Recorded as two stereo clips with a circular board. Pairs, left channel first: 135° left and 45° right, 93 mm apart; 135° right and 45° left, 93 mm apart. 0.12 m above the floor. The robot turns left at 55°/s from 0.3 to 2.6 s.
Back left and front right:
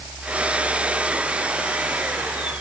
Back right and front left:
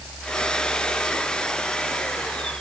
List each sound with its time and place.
Only background noise.